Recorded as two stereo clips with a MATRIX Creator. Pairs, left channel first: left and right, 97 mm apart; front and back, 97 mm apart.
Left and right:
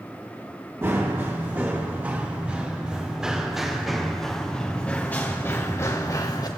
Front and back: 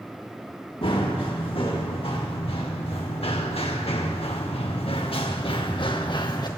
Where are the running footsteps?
20° right, 4 m; by 6.5 s 40° left, 2 m.